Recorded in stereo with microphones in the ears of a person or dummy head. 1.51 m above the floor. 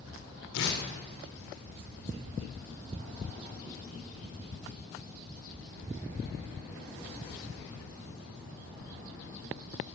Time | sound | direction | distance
0.5 | tearing paper | 70° left (ahead or behind) | 5.5 m